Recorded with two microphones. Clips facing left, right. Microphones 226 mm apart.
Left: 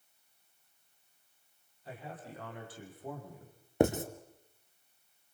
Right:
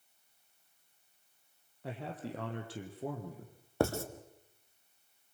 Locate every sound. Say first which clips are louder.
1.8 s a man speaking: right 5 dB; 70° right (ahead or behind), 4.5 m
3.8 s writing: left 4 dB; 20° left (ahead or behind), 1.6 m